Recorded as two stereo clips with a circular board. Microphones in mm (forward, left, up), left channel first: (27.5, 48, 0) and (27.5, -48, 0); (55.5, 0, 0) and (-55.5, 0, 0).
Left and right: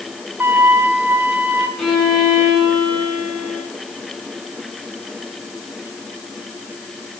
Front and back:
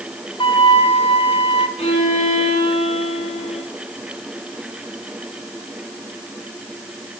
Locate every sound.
0.4 s a flute: 25° right, 0.9 m
1.8 s a violin: 5° left, 2.5 m